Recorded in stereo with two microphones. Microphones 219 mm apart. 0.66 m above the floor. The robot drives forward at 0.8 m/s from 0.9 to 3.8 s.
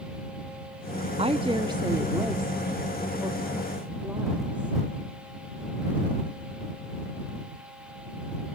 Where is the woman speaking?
25° right (ahead or behind), 0.6 m; by 4.8 s 5° right (ahead or behind), 2.5 m.